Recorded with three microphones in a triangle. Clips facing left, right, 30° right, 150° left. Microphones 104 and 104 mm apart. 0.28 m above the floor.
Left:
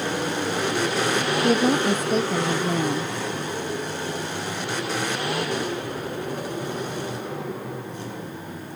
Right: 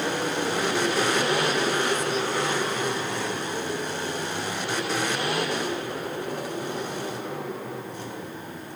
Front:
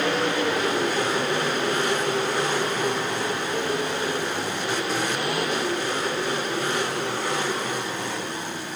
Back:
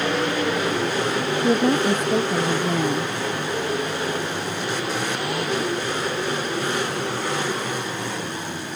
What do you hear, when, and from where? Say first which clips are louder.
1.4 s a woman speaking: left 5 dB, back 6 dB; 130° left